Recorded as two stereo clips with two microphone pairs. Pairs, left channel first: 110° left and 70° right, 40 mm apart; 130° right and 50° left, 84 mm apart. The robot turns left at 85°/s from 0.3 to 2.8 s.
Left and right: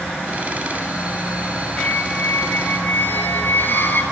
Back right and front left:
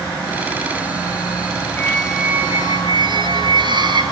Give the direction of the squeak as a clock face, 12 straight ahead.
7 o'clock.